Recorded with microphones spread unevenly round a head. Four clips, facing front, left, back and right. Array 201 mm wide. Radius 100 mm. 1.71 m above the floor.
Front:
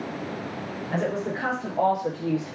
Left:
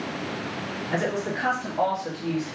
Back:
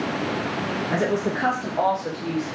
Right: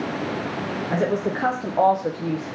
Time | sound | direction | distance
0.9 | a woman speaking | 125° right | 1.1 m